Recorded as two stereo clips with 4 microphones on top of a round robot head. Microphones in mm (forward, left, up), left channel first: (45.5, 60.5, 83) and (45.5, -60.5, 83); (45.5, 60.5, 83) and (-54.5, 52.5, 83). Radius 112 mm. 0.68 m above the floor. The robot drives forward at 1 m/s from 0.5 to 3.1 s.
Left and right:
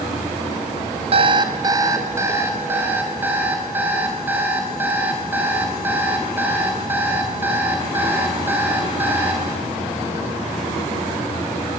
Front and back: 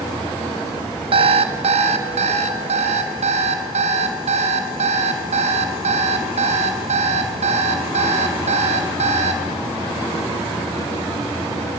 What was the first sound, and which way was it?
An alarm clock, 135° right.